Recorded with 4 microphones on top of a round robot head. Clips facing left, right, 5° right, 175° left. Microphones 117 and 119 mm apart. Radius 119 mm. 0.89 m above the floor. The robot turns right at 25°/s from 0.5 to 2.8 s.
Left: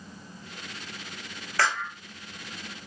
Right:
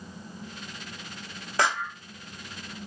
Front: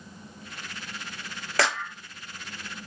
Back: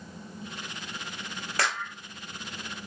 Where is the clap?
15° right, 1.2 m; by 1.9 s 5° right, 1.2 m.